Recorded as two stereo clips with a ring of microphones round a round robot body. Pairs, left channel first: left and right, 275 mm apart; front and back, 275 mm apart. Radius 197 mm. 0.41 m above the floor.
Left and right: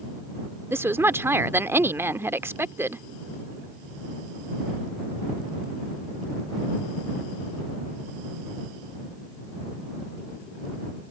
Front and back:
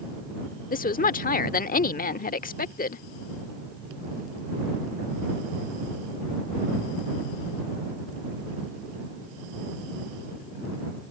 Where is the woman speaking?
15° right.